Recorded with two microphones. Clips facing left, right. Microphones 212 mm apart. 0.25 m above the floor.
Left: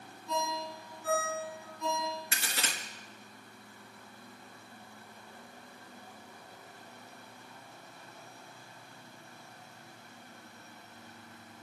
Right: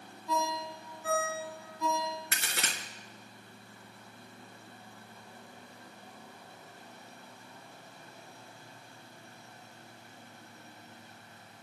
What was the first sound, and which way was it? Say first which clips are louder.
A ringtone: right 2 dB; 45° right (ahead or behind).